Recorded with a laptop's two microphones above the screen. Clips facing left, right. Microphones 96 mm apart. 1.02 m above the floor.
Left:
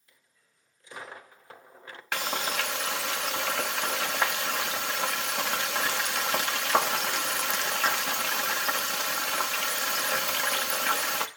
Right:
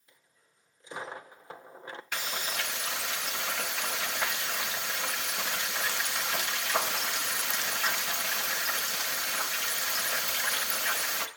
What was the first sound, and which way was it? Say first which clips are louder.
A dropped coin: right 2 dB; 20° right (ahead or behind).